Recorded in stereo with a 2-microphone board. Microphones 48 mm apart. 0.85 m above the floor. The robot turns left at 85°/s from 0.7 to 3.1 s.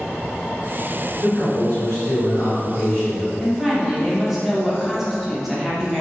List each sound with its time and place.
1.2 s a man speaking: 150° left, 2.0 m; by 3.3 s 10° right, 2.0 m
3.4 s a woman speaking: 5° right (ahead or behind), 0.7 m